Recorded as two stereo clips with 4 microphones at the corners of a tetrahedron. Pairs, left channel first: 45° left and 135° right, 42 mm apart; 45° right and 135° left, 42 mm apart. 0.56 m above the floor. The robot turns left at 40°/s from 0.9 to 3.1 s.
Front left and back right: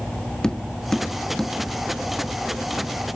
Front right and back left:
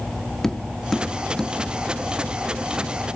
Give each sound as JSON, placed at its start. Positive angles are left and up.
{"t": 0.4, "sound": "tapping", "azimuth_deg": 5, "distance_m": 1.0}